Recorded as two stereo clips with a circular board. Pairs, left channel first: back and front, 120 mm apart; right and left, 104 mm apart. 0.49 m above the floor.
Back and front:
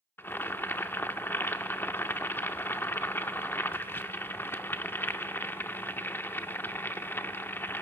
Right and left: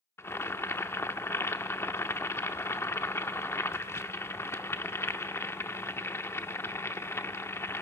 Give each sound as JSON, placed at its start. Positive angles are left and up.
{"t": 0.2, "sound": "boiling", "azimuth_deg": -125, "distance_m": 0.6}